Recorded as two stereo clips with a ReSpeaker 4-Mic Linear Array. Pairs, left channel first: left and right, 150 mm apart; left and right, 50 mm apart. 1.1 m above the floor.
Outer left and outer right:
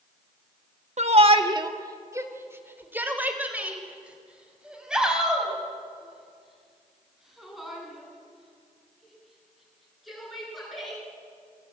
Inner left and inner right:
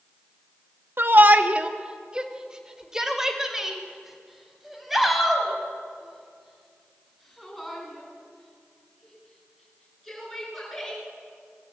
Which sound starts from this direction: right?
A shout, at 1.0 s.